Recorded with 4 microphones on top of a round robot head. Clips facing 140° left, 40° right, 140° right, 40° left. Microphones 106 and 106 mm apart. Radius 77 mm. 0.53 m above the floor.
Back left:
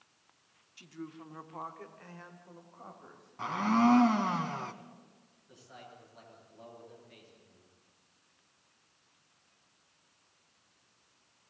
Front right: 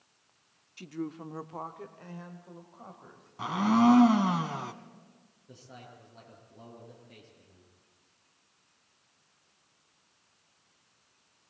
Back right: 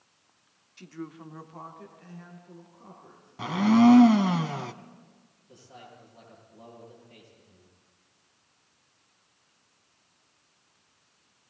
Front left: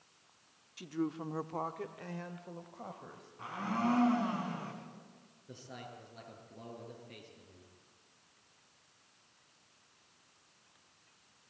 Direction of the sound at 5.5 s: 20° left.